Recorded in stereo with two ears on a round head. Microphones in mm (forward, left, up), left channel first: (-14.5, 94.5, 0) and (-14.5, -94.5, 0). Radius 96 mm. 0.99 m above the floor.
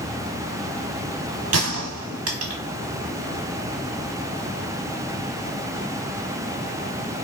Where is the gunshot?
80° right, 1.3 m.